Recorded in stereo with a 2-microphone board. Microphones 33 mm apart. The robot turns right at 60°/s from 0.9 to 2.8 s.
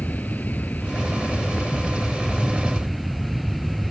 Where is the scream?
I don't hear a scream.